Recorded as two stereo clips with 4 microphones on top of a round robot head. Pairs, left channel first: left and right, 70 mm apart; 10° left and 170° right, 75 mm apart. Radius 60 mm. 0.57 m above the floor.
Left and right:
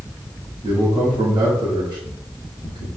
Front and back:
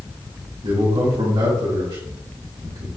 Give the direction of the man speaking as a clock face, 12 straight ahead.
4 o'clock.